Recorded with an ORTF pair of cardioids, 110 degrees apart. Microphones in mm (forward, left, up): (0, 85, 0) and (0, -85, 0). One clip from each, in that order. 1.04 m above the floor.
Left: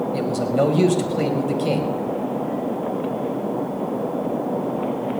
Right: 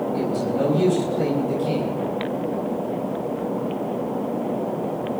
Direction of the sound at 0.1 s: 55° left.